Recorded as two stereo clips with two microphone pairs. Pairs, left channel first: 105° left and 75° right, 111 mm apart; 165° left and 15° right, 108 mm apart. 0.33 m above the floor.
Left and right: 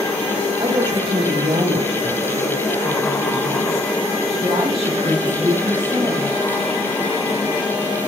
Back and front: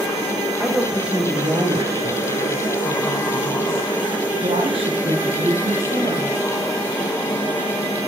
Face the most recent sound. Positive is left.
turn(degrees=-10)